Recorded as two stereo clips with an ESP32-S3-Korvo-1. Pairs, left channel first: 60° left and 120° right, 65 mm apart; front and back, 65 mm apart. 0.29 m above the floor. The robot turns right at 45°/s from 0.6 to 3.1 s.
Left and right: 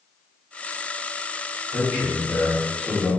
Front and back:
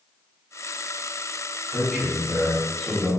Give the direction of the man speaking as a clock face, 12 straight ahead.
4 o'clock.